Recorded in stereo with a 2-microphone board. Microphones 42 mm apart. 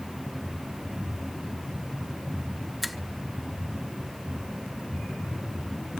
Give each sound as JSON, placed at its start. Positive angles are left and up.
{"t": 2.8, "sound": "a finger snap", "side_deg": 0, "distance_m": 1.1}